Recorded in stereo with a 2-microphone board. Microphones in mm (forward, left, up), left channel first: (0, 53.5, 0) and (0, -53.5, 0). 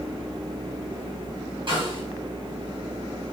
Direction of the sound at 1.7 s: 45° right (ahead or behind).